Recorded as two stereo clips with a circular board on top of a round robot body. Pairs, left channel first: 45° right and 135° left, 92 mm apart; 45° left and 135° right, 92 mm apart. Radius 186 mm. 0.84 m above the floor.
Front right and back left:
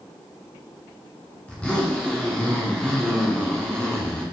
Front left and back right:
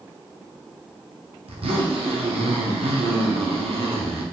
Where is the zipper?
125° right, 1.1 m.